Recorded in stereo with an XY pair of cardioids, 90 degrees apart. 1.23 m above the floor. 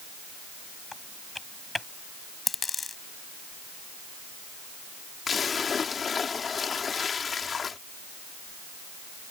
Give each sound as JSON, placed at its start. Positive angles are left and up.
{"t": 0.9, "sound": "typing on a keyboard", "azimuth_deg": 20}
{"t": 2.5, "sound": "a dropped coin", "azimuth_deg": 35}
{"t": 5.3, "sound": "a splash", "azimuth_deg": 45}